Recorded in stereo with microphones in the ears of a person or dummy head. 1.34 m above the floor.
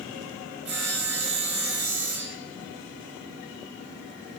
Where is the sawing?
55° right (ahead or behind), 1.0 m.